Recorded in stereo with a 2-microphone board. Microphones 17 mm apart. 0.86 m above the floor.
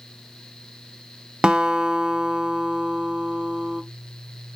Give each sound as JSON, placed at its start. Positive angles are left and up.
{"t": 1.4, "sound": "a guitar", "side_deg": -60, "distance_m": 0.9}